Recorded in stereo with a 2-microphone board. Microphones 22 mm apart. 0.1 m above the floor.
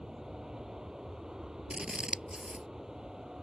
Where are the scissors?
45° right (ahead or behind).